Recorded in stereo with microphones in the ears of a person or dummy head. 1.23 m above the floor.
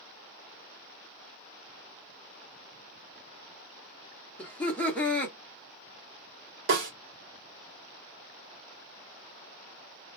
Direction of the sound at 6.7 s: 55° right (ahead or behind).